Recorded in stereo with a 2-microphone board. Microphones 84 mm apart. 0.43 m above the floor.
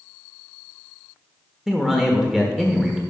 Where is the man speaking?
5° right (ahead or behind), 1.1 m.